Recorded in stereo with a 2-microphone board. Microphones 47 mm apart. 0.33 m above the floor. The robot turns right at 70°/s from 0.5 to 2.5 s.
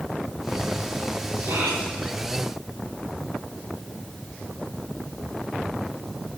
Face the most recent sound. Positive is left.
turn(degrees=-40)